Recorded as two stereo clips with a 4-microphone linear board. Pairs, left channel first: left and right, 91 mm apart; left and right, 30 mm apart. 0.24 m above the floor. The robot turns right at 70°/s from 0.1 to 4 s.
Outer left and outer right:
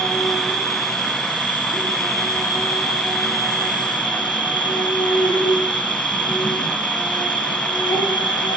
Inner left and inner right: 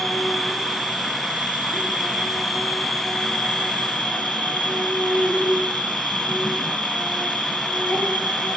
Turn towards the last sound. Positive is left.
turn(degrees=80)